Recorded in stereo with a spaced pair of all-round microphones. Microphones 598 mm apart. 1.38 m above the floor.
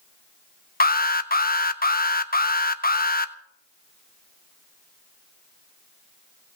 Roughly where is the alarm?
Centre.